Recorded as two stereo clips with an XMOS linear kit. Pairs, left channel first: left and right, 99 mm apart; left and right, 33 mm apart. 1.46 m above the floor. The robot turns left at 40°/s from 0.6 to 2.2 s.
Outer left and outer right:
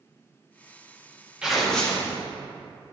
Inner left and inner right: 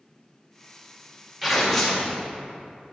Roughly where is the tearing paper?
Centre.